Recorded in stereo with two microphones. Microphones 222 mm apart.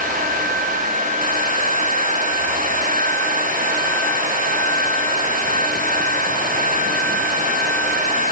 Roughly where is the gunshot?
No gunshot in this recording.